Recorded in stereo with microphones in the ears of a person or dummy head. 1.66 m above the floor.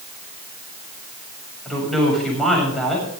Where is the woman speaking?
5° left (ahead or behind), 7.5 m.